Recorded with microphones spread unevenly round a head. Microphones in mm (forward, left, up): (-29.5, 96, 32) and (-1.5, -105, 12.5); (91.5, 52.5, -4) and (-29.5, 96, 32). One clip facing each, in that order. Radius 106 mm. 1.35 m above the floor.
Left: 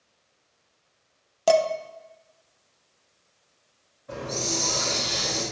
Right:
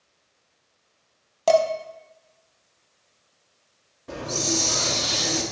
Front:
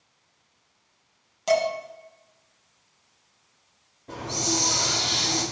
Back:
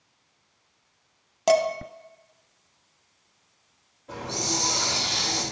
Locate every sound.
1.5 s dishes clattering: 175° left, 0.7 m
4.1 s a hiss: 90° right, 1.9 m